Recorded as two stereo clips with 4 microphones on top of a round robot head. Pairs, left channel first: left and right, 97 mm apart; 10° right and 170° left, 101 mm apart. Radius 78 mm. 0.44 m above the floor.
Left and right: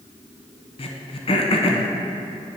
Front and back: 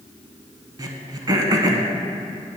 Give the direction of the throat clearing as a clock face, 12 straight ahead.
8 o'clock.